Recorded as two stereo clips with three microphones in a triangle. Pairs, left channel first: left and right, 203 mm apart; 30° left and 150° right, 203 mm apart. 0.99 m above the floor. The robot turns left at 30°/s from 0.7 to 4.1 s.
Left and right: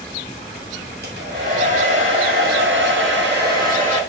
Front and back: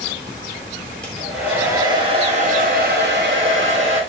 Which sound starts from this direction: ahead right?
A hair dryer, at 1.0 s.